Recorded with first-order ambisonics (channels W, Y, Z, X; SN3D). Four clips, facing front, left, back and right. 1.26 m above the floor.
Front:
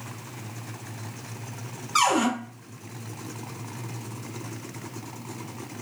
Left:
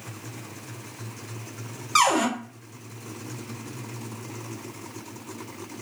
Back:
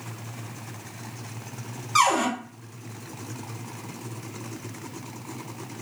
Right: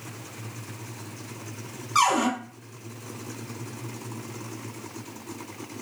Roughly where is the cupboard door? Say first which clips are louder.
Left 1 dB, back 1 dB; left.